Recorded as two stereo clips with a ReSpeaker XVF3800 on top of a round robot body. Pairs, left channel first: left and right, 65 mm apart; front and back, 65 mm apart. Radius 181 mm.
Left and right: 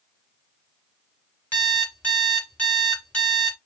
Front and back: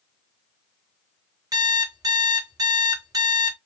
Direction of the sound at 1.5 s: 155° left.